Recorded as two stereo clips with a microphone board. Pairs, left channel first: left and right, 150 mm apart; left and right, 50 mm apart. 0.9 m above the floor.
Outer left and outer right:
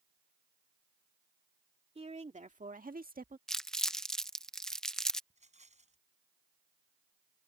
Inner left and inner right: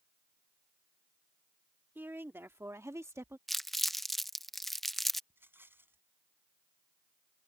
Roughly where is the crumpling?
Centre.